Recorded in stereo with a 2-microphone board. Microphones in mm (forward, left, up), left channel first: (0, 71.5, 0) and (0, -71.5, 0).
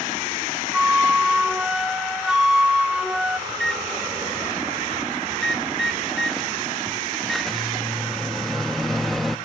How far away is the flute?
About 0.9 m.